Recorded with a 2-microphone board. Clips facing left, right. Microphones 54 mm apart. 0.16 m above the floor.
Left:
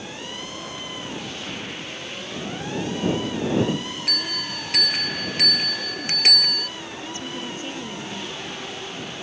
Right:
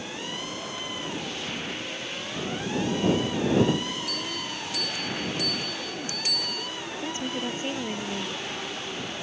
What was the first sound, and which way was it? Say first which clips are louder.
A bell: left 3 dB; 75° left (ahead or behind).